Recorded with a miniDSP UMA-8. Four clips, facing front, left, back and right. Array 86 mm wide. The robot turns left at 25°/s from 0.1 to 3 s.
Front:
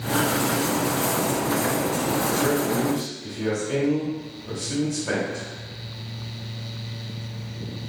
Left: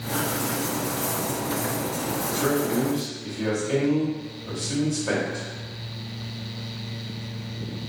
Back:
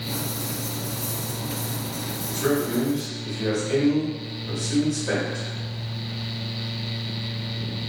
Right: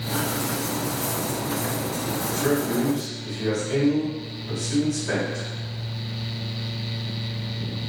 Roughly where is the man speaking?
Left.